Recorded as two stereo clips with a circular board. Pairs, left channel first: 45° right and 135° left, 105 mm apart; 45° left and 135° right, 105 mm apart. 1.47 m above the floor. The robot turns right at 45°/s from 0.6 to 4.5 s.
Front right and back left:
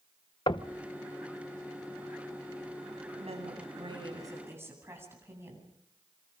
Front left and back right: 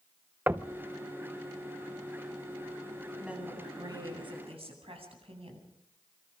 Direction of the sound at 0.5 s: 65° right.